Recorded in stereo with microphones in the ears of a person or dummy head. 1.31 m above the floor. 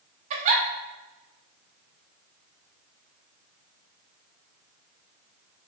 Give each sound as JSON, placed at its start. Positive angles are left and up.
{"t": 0.3, "sound": "a giggle", "side_deg": -40, "distance_m": 0.8}